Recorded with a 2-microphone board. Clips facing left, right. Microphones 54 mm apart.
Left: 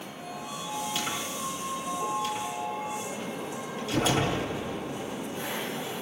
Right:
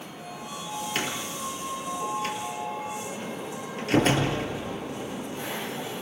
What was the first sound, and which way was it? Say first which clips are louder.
A door slam: right 1 dB; 45° right (ahead or behind).